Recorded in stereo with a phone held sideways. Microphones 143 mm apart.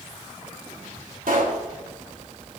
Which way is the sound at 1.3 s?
75° right (ahead or behind).